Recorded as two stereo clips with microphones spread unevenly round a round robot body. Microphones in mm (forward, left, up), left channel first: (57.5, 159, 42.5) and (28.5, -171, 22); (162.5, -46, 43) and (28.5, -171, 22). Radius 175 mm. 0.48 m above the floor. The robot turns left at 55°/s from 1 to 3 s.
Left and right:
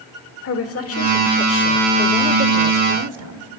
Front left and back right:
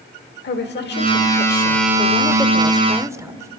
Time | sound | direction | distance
0.4 | a woman speaking | 40° left | 1.8 m